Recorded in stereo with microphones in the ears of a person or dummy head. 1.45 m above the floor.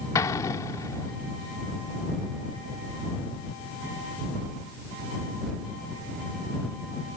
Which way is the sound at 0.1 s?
15° left (ahead or behind).